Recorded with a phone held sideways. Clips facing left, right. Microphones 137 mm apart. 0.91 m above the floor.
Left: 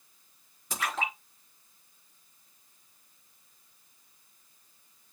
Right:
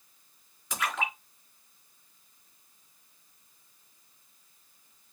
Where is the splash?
30° left (ahead or behind), 5.5 m.